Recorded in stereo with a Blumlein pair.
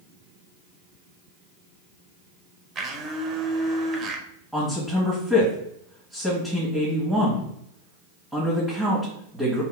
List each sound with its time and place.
2.8 s a blender: 20° right, 0.8 m
4.5 s a man speaking: 5° left, 1.6 m